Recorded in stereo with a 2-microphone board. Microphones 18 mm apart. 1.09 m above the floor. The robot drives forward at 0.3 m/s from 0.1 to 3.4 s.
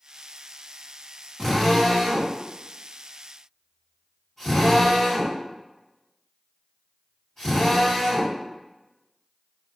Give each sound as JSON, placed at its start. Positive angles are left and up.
{"t": 1.4, "sound": "a drill", "side_deg": 25, "distance_m": 1.7}